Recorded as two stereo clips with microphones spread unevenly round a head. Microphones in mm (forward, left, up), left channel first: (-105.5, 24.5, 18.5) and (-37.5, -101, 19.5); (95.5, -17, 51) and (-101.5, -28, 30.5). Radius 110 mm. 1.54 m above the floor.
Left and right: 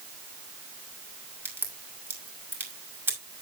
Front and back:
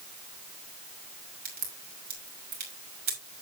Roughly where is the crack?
Behind right.